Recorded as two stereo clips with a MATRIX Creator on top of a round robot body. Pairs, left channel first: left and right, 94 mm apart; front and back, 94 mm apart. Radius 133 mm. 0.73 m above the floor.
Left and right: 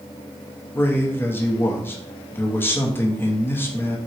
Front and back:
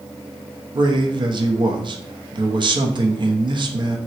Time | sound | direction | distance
0.8 | a man speaking | 155° left | 0.7 m